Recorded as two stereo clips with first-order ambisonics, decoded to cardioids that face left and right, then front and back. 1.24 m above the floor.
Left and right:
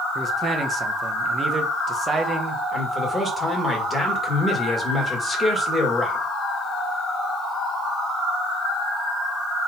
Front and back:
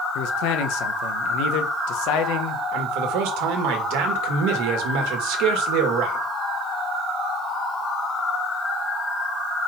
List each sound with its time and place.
0.1 s a man speaking: 20° right, 1.0 m
2.7 s a man speaking: 175° left, 1.9 m